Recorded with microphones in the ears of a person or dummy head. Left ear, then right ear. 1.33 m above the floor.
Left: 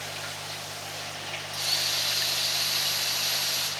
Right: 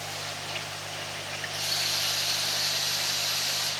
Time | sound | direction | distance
1.5 | a drill | 40° left (ahead or behind) | 9 m